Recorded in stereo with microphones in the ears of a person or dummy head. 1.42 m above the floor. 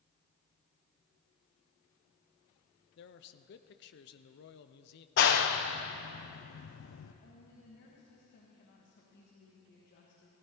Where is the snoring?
No snoring in this recording.